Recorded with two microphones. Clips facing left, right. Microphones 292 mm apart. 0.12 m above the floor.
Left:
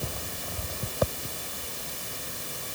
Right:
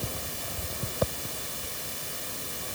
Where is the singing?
No singing in this recording.